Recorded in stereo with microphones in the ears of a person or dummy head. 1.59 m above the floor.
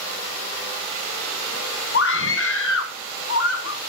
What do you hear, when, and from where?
1.9 s a scream: 75° left (ahead or behind), 1.5 m; by 3.8 s 70° left (ahead or behind), 2 m